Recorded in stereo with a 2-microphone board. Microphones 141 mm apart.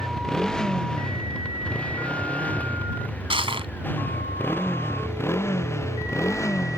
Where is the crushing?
40° right (ahead or behind).